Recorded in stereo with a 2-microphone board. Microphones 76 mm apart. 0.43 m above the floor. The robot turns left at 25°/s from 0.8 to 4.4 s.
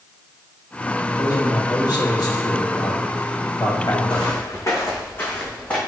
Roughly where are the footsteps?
Left.